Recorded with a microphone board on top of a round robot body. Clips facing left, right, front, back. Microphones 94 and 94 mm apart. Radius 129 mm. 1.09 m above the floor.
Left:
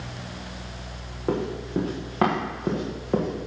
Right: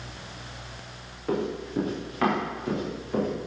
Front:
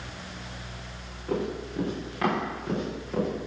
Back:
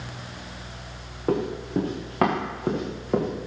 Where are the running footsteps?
150° left, 6.5 m; by 3.3 s 135° left, 5 m.